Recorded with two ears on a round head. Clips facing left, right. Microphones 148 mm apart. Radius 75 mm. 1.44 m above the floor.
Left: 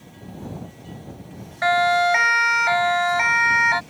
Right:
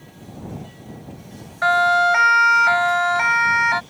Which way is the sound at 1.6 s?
15° left (ahead or behind).